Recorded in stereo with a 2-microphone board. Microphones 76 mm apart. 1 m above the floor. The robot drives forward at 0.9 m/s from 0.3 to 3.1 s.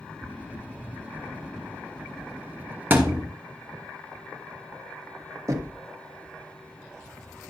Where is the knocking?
45° right (ahead or behind), 1.3 m.